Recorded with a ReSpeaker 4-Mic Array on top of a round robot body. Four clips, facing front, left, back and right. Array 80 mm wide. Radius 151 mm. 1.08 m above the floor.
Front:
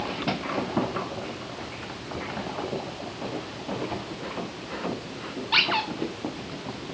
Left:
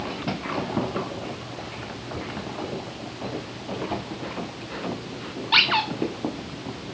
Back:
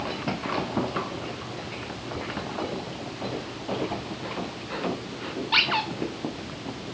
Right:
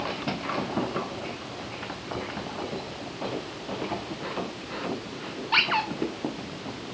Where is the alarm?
I don't hear an alarm.